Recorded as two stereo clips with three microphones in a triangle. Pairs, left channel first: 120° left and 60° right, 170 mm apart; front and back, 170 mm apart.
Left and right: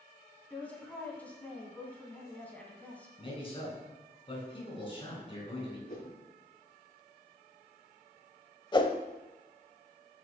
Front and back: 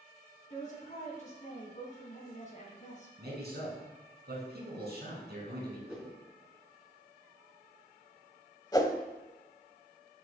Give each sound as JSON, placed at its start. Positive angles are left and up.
{"t": 0.5, "sound": "a woman speaking", "azimuth_deg": 40, "distance_m": 3.5}
{"t": 3.2, "sound": "a man speaking", "azimuth_deg": 175, "distance_m": 3.5}
{"t": 5.9, "sound": "a whoosh", "azimuth_deg": 95, "distance_m": 4.0}
{"t": 8.7, "sound": "a whoosh", "azimuth_deg": 65, "distance_m": 0.9}